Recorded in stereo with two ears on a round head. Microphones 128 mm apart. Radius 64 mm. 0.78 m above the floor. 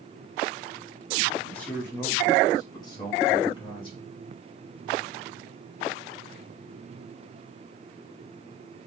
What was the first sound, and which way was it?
A man speaking, 10° left (ahead or behind).